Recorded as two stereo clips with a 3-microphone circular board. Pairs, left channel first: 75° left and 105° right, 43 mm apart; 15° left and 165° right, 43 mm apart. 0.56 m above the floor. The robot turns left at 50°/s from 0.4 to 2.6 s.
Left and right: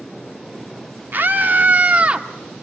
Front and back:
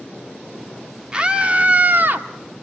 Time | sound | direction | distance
1.1 | a scream | 100° right | 1.0 m